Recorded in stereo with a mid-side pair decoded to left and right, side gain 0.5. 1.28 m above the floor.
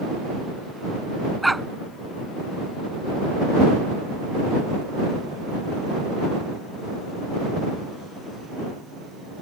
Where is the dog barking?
5° right.